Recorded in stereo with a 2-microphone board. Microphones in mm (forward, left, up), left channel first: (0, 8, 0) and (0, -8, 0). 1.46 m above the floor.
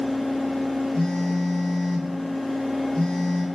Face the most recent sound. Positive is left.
turn(degrees=70)  # may be behind; listen again after turning